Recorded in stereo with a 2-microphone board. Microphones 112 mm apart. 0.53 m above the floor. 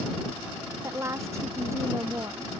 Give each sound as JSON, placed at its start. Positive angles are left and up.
{"t": 0.8, "sound": "a woman speaking", "side_deg": -25}